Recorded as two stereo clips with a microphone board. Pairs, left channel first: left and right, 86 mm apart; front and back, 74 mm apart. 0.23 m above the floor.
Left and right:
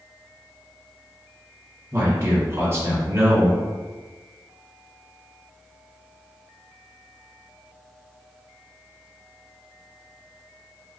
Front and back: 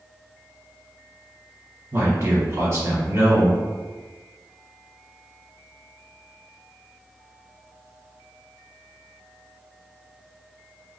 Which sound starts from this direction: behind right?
A man speaking, at 1.9 s.